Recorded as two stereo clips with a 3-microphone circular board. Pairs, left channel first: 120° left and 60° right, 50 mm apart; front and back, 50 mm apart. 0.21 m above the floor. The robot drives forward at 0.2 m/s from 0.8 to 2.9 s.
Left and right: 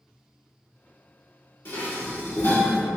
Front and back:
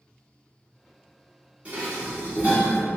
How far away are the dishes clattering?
About 1.4 m.